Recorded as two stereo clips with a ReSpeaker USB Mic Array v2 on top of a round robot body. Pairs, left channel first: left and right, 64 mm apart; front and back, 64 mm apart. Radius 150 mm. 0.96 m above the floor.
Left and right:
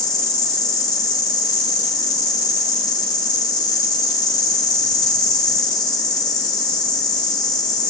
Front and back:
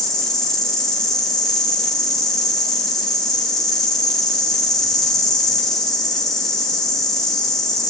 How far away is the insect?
About 1.0 m.